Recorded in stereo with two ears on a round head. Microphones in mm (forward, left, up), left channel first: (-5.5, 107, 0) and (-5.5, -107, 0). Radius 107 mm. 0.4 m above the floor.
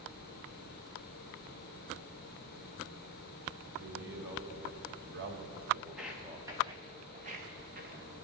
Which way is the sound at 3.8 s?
50° right (ahead or behind).